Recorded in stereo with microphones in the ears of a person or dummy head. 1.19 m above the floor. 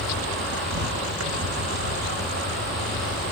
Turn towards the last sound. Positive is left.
turn(degrees=-45)  # may be behind; listen again after turning